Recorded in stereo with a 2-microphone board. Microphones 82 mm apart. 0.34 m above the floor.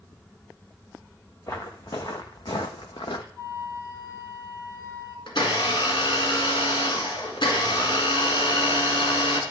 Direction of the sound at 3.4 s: 45° left (ahead or behind).